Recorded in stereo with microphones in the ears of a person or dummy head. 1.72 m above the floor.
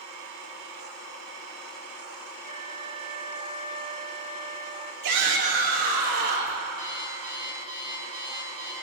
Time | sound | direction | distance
2.4 | a flute | 25° right (ahead or behind) | 0.5 m
5.0 | a shout | 85° right | 5.5 m
6.8 | an alarm clock | 25° right (ahead or behind) | 7 m